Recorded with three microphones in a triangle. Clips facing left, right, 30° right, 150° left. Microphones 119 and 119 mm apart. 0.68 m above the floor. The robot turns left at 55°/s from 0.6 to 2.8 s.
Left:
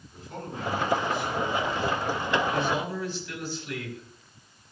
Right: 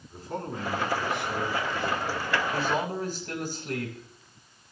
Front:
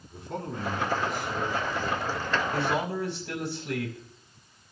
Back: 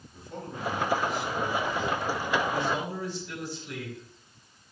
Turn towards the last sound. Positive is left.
turn(degrees=-45)